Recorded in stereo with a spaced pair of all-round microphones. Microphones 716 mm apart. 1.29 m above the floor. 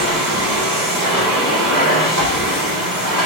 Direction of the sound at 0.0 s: 70° right (ahead or behind).